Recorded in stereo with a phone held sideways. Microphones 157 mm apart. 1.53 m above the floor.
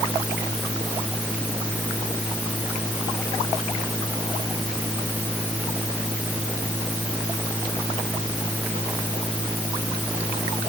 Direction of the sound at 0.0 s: 5° right (ahead or behind).